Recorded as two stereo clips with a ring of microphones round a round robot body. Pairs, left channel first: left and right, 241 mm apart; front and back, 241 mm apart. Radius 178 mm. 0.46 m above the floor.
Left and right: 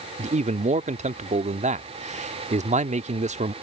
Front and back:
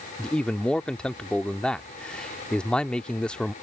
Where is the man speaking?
85° right.